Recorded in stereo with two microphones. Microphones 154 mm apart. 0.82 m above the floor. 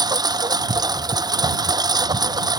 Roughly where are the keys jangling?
No keys jangling in this recording.